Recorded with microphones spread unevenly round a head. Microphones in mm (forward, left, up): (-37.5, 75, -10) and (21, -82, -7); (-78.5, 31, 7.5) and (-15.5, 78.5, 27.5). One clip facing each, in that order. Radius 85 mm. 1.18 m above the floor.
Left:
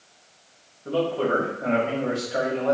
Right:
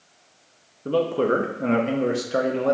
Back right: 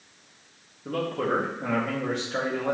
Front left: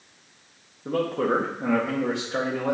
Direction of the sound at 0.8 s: 45° right.